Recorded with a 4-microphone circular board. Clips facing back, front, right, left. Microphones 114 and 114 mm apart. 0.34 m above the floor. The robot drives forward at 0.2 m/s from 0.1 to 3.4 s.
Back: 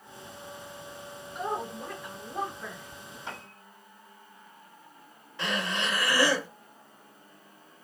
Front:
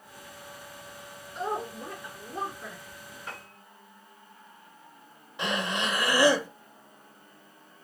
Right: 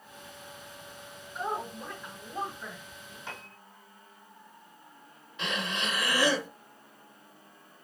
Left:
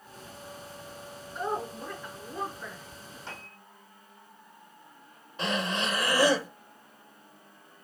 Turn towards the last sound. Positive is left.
turn(degrees=65)